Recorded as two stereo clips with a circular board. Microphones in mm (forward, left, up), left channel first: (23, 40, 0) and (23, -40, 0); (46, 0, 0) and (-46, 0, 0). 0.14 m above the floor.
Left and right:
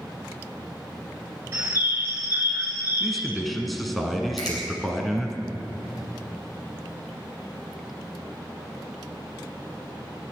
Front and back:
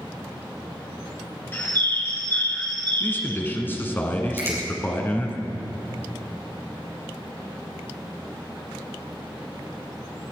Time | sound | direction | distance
1.5 | a bird | 45° right | 1.3 m
3.0 | a man speaking | straight ahead | 1.4 m
4.4 | a finger snap | 120° left | 4.5 m